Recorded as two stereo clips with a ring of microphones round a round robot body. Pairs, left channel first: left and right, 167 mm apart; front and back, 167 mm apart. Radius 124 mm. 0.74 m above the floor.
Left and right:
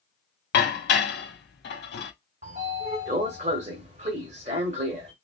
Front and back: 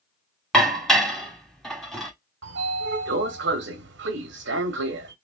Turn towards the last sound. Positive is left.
turn(degrees=-150)